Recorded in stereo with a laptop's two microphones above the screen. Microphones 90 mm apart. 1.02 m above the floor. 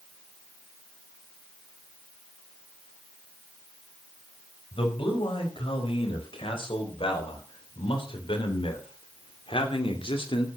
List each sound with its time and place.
4.7 s a man speaking: 80° left, 6 m; by 10.5 s 75° left (ahead or behind), 2.5 m